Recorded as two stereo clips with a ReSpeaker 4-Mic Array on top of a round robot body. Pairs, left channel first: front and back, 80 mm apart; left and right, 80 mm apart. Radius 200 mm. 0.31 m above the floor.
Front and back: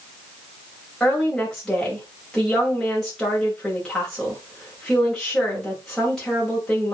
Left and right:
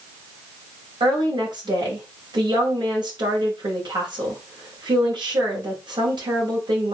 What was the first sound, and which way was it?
A woman speaking, 85° right.